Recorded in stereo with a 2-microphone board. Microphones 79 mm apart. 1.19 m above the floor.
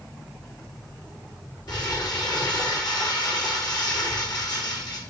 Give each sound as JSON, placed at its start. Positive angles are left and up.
{"t": 1.7, "sound": "crumpling", "side_deg": 60, "distance_m": 2.5}